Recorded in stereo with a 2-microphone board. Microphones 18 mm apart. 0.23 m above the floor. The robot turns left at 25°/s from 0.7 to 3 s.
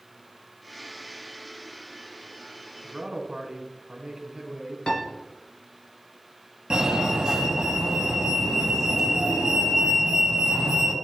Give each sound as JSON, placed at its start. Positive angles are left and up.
{"t": 2.8, "sound": "a man speaking", "side_deg": -30, "distance_m": 2.0}
{"t": 4.9, "sound": "a piano", "side_deg": 60, "distance_m": 2.0}
{"t": 6.7, "sound": "a fire alarm", "side_deg": -35, "distance_m": 2.5}